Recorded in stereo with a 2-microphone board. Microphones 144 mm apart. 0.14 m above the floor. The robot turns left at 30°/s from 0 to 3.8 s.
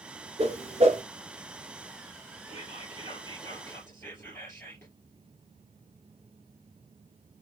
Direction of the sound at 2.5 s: 60° left.